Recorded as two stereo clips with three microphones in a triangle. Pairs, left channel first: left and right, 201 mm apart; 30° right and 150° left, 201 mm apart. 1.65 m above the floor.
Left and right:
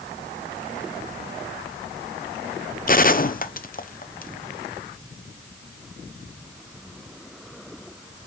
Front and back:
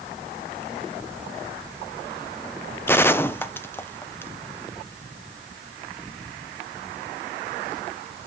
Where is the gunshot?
45° left, 0.7 m.